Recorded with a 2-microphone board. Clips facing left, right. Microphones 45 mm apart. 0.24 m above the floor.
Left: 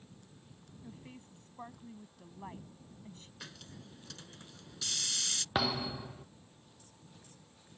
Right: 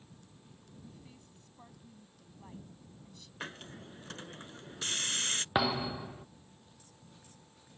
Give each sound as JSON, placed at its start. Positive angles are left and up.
{"t": 0.8, "sound": "a woman speaking", "side_deg": 35}
{"t": 3.4, "sound": "a hiss", "side_deg": -35}
{"t": 5.5, "sound": "a thud", "side_deg": -15}